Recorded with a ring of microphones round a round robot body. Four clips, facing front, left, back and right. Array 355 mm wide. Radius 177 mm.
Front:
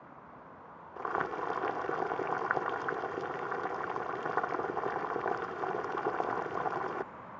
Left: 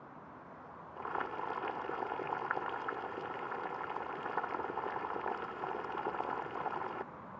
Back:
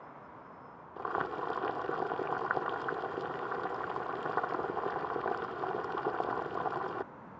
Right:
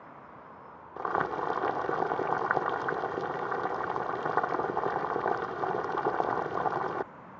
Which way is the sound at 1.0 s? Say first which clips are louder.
Right 9 dB, front 1 dB; 85° right.